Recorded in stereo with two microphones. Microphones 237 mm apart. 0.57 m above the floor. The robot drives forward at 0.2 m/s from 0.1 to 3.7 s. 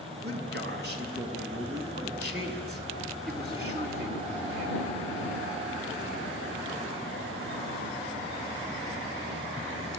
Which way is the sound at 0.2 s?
45° right (ahead or behind).